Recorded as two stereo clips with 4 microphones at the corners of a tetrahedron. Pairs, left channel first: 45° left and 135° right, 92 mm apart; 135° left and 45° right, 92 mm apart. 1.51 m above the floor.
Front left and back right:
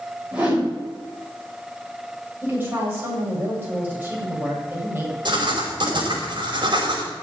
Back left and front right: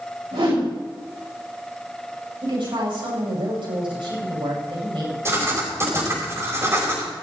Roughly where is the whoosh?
Ahead right.